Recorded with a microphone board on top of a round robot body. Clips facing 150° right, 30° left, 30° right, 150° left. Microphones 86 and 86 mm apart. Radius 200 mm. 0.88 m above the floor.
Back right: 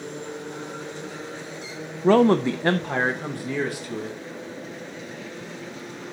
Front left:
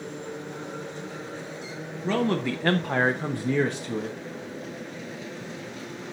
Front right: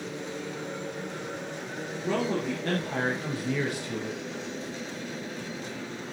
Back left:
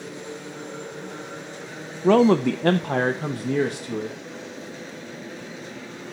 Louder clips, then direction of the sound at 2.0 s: Back right 9 dB, back left 12 dB; 175° left.